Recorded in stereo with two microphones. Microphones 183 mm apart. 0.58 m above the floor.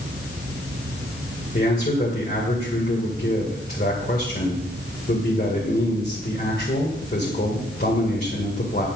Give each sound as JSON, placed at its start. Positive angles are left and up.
{"t": 1.5, "sound": "a man speaking", "side_deg": 50, "distance_m": 2.0}